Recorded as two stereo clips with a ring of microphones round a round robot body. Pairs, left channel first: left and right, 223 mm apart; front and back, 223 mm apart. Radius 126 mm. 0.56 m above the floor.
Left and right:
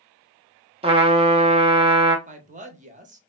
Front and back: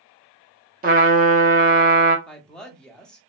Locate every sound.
0.8 s a trumpet: 145° right, 0.8 m
2.3 s a woman speaking: 85° right, 0.8 m